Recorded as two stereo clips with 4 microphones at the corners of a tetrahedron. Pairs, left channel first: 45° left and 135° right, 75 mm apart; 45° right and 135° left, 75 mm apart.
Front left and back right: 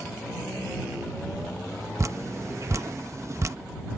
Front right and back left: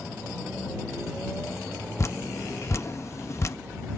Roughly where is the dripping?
Right.